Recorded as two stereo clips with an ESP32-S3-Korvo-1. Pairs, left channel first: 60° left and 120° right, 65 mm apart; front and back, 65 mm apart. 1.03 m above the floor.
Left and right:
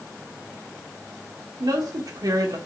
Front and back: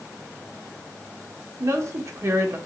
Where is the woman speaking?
135° right, 2 m.